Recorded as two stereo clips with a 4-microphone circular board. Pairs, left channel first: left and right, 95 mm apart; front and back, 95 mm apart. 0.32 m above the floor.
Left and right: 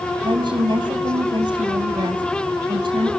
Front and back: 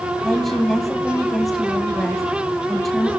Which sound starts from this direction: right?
A woman speaking, at 0.2 s.